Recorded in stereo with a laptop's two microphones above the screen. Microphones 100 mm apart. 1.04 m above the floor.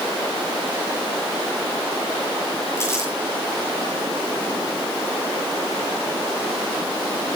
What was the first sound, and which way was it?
Crumpling, 30° left (ahead or behind).